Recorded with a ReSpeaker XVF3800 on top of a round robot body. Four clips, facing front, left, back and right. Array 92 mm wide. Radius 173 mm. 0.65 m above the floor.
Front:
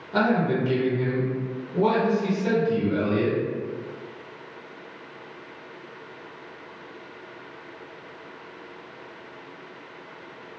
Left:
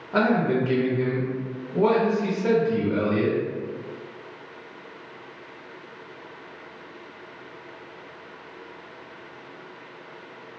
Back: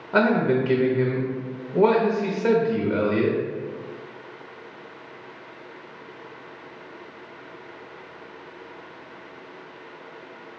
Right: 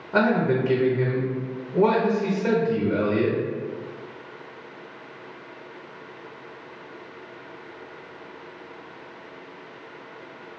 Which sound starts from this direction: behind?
A man speaking, at 0.1 s.